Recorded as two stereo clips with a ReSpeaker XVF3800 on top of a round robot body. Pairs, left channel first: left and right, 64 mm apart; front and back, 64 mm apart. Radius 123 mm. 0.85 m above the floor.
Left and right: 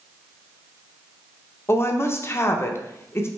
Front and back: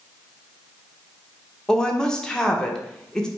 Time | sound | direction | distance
1.7 | a woman speaking | 75° left | 0.9 m